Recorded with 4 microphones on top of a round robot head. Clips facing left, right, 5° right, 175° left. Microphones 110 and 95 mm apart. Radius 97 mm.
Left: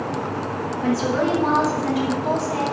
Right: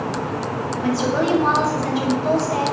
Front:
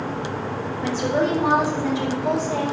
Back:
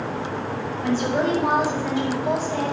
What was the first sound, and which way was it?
A woman speaking, 25° right.